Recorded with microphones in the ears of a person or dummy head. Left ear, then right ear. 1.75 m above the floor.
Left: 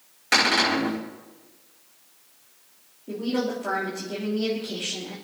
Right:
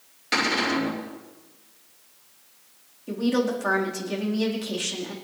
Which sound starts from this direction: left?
A cupboard door, at 0.3 s.